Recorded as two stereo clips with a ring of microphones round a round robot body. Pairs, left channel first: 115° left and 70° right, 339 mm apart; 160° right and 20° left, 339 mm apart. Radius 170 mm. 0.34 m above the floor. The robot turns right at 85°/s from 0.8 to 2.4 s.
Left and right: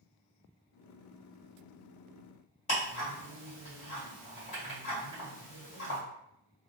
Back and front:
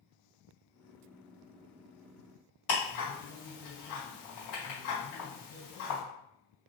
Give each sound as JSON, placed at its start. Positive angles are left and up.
{"t": 2.7, "sound": "ticking", "azimuth_deg": 175, "distance_m": 1.9}